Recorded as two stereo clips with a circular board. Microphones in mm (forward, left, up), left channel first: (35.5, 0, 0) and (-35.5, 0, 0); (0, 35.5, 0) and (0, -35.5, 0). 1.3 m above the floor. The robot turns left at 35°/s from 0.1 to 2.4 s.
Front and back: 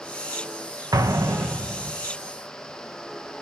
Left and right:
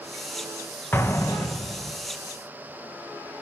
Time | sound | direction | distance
0.9 | an explosion | 150° left | 0.9 m